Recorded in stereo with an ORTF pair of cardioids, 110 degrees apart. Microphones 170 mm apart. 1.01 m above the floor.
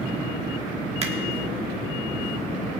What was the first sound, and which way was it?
A finger snap, 40° right.